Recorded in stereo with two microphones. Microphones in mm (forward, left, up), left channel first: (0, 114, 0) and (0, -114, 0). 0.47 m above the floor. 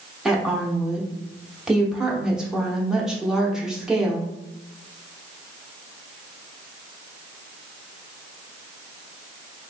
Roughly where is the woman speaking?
Centre.